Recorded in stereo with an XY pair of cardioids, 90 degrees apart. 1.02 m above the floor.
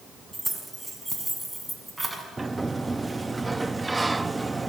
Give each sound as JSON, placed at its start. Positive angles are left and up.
{"t": 0.3, "sound": "keys jangling", "azimuth_deg": -10, "distance_m": 6.0}
{"t": 2.4, "sound": "a sliding door", "azimuth_deg": -20, "distance_m": 0.7}